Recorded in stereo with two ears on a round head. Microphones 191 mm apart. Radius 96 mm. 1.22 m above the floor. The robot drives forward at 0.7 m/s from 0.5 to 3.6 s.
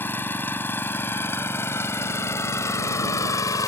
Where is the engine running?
10° left (ahead or behind); by 3.7 s 15° left (ahead or behind).